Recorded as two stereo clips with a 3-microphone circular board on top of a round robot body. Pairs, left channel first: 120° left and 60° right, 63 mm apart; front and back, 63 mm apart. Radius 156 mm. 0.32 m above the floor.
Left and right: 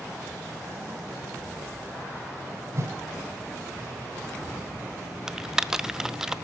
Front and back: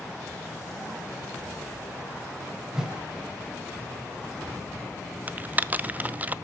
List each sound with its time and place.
2.7 s a whoosh: 100° right, 2 m
5.3 s typing on a keyboard: 135° right, 0.8 m